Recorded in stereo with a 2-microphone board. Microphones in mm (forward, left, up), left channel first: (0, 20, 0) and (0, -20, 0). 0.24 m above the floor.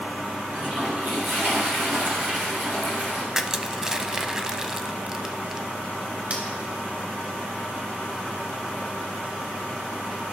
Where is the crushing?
15° right (ahead or behind), 0.5 m.